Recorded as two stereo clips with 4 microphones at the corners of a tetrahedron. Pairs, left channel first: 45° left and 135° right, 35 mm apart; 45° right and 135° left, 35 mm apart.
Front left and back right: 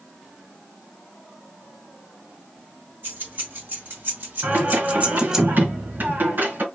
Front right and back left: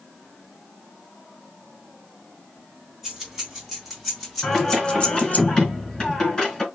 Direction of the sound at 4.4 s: 120° right.